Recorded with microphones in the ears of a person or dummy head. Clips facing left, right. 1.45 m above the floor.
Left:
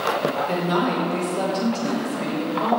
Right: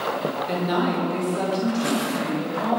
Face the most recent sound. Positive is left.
turn(degrees=-10)  # may be behind; listen again after turning